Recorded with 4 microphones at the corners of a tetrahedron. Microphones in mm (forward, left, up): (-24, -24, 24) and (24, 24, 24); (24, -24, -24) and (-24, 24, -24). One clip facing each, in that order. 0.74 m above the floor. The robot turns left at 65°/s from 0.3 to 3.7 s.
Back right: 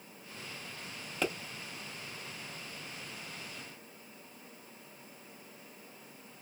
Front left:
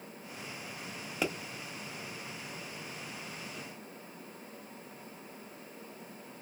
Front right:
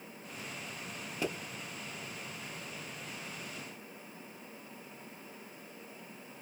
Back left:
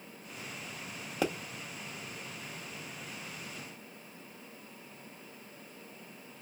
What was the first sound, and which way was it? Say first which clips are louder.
A pop: even, back left 4 dB; 130° left.